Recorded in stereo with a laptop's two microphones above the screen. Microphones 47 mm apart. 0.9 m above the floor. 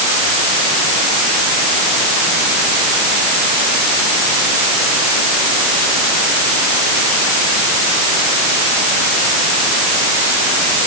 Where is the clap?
I don't hear a clap.